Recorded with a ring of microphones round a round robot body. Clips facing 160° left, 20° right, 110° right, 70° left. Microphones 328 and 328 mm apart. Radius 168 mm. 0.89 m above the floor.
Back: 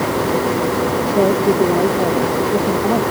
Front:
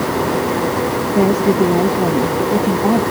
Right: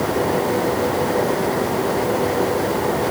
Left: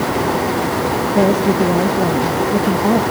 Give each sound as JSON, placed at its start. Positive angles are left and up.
{"t": 1.1, "sound": "a woman speaking", "azimuth_deg": 45}